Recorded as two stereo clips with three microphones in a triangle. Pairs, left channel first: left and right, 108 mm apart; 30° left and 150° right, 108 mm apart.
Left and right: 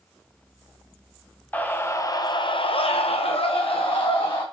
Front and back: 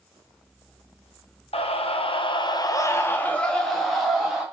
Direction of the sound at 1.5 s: 15° left.